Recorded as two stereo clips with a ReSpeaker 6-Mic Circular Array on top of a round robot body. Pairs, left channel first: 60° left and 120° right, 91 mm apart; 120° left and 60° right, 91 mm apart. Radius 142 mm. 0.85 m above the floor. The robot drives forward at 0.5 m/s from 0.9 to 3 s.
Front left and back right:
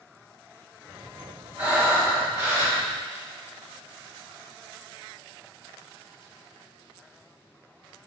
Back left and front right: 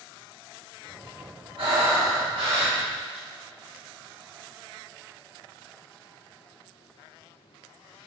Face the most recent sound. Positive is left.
turn(degrees=-55)